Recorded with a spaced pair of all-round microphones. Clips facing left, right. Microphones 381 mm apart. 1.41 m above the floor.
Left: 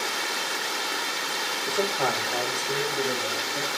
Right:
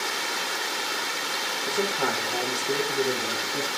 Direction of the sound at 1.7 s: 20° right (ahead or behind).